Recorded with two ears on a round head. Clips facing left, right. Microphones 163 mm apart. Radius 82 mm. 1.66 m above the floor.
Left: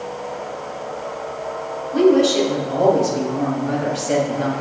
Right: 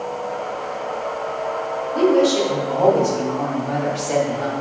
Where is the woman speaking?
45° left (ahead or behind), 4 m.